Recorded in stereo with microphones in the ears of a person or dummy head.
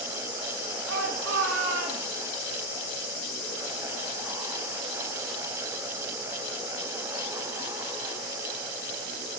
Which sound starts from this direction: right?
A shout, at 0.9 s.